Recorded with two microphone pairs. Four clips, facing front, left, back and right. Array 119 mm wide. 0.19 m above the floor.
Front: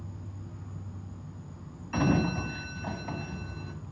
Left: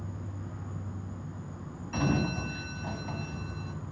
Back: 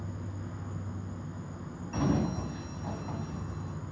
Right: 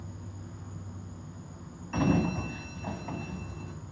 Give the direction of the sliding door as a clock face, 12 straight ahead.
1 o'clock.